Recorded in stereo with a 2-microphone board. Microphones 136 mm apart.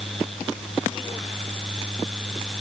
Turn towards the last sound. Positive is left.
No sound to turn to.